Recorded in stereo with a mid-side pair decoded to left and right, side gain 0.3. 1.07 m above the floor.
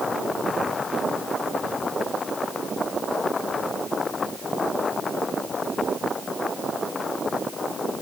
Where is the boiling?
No boiling in this recording.